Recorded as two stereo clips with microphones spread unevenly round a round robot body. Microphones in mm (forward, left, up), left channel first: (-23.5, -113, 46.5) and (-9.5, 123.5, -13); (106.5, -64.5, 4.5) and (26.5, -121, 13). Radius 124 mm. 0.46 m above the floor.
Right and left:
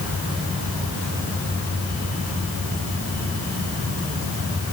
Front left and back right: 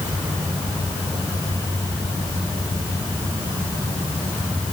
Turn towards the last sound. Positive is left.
No sound to turn to.